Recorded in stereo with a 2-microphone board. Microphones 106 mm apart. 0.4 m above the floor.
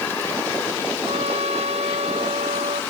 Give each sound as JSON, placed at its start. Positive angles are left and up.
{"t": 1.1, "sound": "a trumpet", "side_deg": -85}